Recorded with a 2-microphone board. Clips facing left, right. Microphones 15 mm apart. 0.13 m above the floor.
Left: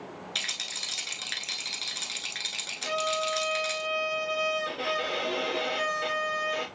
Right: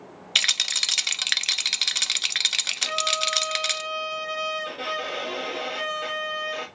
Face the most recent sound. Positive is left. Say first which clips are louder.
# even
turn(degrees=-10)  # may be behind; listen again after turning